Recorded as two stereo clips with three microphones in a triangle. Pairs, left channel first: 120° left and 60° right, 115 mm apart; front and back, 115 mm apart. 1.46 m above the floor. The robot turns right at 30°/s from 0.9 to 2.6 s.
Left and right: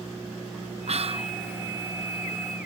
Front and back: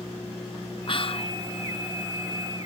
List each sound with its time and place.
0.9 s whispering: 40° right; by 1.3 s 25° right